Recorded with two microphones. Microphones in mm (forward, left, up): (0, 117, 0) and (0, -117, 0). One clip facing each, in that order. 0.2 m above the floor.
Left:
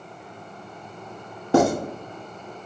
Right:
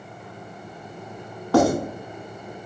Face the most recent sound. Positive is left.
turn(degrees=20)  # may be behind; listen again after turning